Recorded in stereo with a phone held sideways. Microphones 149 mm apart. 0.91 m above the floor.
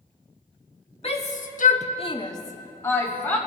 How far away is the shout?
About 0.9 m.